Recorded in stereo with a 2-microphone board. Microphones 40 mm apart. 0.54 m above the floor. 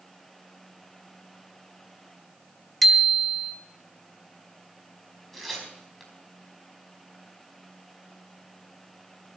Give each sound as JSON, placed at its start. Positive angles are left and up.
{"t": 2.8, "sound": "a bicycle bell", "side_deg": 5, "distance_m": 2.0}
{"t": 5.3, "sound": "tearing paper", "side_deg": 5, "distance_m": 4.5}